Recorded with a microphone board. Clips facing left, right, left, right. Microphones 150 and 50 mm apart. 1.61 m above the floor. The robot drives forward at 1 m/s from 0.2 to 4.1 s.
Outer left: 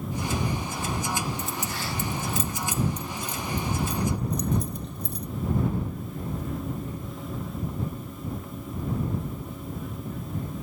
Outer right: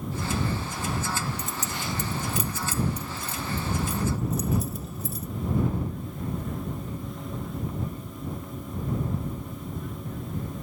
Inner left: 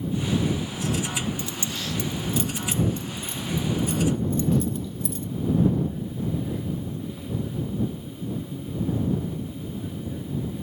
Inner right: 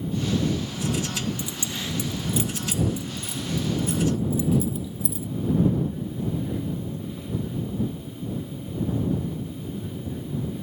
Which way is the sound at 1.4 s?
20° right (ahead or behind).